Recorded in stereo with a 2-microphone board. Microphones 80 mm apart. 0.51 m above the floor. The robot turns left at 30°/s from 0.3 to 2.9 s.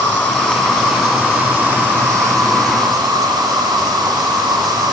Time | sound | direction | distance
0.0 | an insect | 20° left | 1.2 m